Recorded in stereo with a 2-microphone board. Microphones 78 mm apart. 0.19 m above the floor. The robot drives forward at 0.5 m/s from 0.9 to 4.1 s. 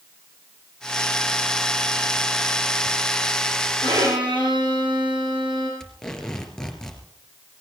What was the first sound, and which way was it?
A violin, 80° right.